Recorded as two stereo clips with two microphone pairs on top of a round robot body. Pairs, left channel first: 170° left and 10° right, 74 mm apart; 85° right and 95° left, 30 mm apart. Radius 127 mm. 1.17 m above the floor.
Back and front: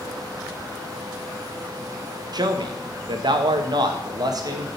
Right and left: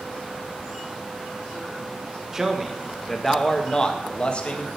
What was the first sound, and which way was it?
A man speaking, 15° left.